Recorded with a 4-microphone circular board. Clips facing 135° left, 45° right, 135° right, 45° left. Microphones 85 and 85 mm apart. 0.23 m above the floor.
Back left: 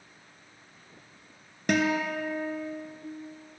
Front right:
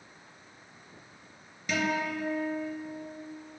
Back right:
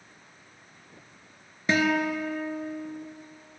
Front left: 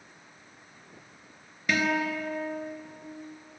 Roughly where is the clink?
No clink in this recording.